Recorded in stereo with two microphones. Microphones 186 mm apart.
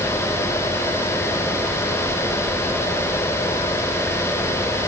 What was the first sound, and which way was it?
Only background noise.